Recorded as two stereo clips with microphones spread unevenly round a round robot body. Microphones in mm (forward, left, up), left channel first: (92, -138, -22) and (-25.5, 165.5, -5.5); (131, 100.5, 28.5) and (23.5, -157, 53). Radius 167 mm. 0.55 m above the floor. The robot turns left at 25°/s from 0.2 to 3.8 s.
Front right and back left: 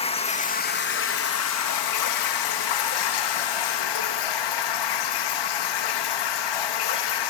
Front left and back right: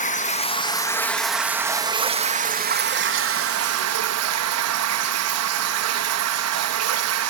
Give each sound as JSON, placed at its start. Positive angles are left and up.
{"t": 0.0, "sound": "running water", "azimuth_deg": 5, "distance_m": 3.0}